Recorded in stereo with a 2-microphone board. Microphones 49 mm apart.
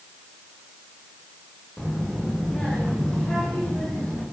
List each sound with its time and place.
1.8 s a child speaking: 10° left (ahead or behind), 6.5 m; by 4.2 s 15° left (ahead or behind), 9.5 m